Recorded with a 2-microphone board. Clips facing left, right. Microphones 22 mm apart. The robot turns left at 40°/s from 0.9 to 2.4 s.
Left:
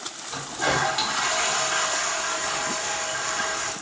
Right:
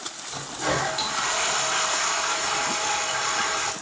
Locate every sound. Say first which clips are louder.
0.3 s a toilet flushing: left 2 dB; 25° left, 4 m; by 3.7 s 35° right, 4 m